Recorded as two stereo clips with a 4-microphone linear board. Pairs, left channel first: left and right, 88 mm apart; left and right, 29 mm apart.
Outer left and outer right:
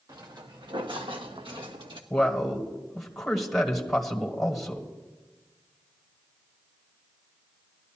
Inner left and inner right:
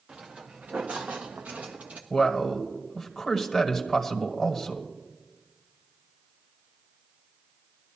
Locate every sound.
0.1 s footsteps: 45° right (ahead or behind), 1.6 m; by 2.0 s 70° right (ahead or behind), 1.5 m
2.1 s a man speaking: centre (ahead or behind), 1.5 m